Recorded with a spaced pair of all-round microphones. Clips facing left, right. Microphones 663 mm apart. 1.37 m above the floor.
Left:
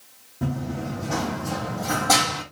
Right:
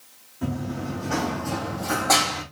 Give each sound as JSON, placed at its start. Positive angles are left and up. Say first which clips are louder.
{"t": 0.4, "sound": "running footsteps", "louder": "even", "side_deg": 70, "distance_m": 3.5}